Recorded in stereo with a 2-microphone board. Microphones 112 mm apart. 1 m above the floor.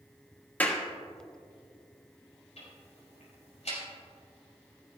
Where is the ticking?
85° left, 4 m.